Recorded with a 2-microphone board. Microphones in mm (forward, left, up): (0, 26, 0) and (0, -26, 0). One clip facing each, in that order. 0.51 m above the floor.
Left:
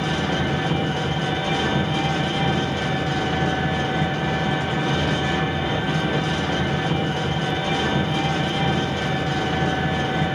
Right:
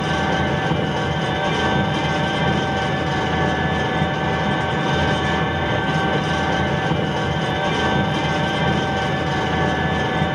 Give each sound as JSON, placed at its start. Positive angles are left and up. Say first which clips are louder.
{"t": 0.0, "sound": "an engine running", "louder": "right 3 dB", "side_deg": -50, "distance_m": 1.2}